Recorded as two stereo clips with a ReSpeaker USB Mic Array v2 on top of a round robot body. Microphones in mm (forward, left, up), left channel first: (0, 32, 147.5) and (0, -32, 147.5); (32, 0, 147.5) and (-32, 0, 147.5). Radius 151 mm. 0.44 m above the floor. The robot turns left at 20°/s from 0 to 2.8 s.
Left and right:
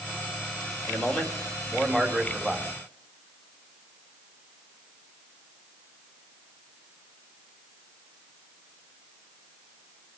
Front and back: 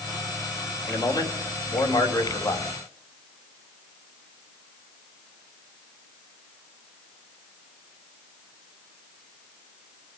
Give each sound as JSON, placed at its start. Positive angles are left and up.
{"t": 0.9, "sound": "a man speaking", "azimuth_deg": 30, "distance_m": 3.5}